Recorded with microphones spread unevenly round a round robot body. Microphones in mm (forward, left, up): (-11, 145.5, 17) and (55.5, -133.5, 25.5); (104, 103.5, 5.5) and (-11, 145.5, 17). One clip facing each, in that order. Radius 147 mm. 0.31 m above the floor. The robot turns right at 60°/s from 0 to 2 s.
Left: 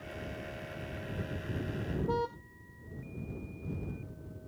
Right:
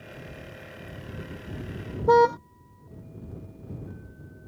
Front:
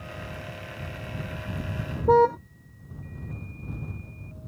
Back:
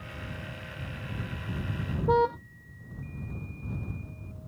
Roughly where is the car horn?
Right.